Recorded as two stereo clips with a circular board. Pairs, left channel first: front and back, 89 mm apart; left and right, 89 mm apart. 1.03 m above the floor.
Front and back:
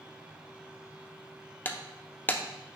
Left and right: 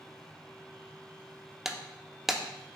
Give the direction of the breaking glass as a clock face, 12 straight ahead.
12 o'clock.